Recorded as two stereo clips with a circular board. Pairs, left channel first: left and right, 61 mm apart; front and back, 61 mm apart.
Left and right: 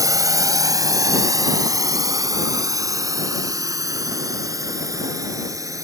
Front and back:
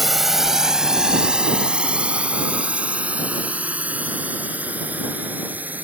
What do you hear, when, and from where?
0.0 s a drone: 95° right; by 5.8 s 120° right